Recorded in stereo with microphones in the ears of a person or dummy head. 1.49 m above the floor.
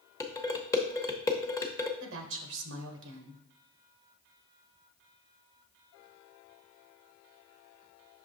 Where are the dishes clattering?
15° left (ahead or behind), 0.8 m.